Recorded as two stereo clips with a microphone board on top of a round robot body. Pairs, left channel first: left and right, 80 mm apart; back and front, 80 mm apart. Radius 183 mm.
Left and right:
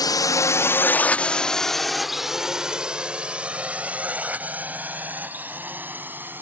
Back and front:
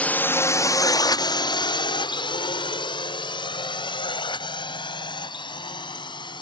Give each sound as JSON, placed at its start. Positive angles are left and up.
{"t": 0.0, "sound": "a drone", "azimuth_deg": 110}